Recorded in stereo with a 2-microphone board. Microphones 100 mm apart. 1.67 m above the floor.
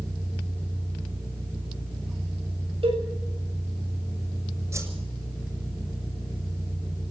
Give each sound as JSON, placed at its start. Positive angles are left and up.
{"t": 2.8, "sound": "a cowbell", "side_deg": -75, "distance_m": 7.5}
{"t": 4.7, "sound": "a whoosh", "side_deg": -30, "distance_m": 6.0}